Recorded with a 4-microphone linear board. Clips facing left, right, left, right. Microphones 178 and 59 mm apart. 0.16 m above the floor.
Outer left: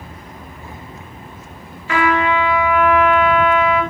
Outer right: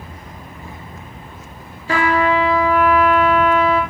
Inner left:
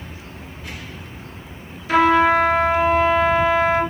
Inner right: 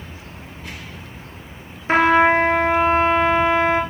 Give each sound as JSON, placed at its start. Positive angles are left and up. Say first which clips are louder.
{"t": 1.9, "sound": "a trumpet", "louder": "even, even", "side_deg": -35, "distance_m": 3.0}